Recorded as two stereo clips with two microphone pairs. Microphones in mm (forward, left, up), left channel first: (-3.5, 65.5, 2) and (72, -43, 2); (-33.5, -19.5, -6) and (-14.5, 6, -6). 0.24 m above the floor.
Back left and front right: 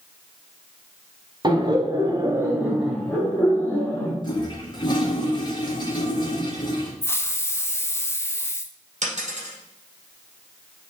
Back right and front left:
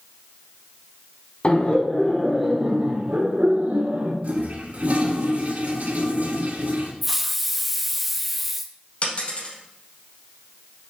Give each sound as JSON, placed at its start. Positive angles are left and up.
{"t": 1.4, "sound": "laughter", "azimuth_deg": -95, "distance_m": 1.4}
{"t": 4.2, "sound": "a toilet flushing", "azimuth_deg": 75, "distance_m": 1.4}
{"t": 7.0, "sound": "a hiss", "azimuth_deg": 140, "distance_m": 0.5}
{"t": 9.0, "sound": "a dropped coin", "azimuth_deg": -85, "distance_m": 4.0}